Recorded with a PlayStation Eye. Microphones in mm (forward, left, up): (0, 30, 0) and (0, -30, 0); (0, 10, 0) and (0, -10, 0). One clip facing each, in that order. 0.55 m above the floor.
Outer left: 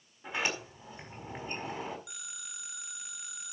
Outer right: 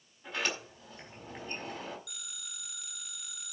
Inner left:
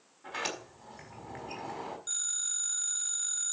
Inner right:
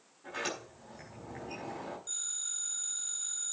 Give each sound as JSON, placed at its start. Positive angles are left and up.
{"t": 0.2, "sound": "a sliding door", "side_deg": 20, "distance_m": 5.0}
{"t": 2.1, "sound": "a phone ringing", "side_deg": 20, "distance_m": 4.0}